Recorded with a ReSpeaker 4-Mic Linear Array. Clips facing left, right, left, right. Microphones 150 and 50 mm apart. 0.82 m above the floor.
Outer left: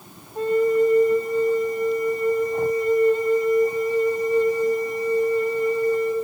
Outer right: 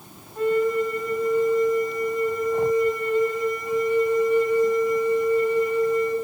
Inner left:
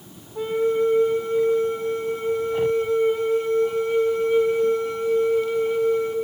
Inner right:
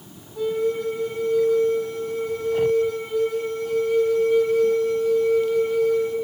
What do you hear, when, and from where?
0.3 s a flute: 35° left (ahead or behind), 4.5 m